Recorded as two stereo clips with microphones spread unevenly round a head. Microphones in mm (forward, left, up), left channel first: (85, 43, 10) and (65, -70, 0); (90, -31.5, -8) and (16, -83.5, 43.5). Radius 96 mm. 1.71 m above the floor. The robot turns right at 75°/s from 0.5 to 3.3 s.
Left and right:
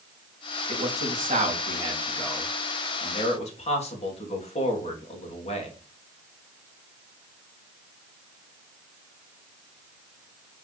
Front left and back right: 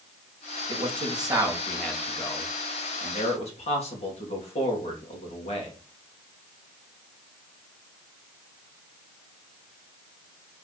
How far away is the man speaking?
About 3 m.